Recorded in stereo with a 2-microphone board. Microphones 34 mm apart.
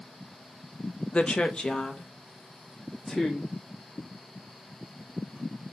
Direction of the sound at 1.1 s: 40° left (ahead or behind).